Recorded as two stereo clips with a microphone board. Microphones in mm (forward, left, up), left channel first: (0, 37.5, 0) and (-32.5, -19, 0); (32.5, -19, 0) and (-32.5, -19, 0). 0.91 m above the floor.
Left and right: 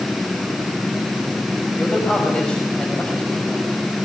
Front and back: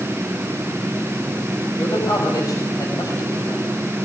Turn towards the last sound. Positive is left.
turn(degrees=-15)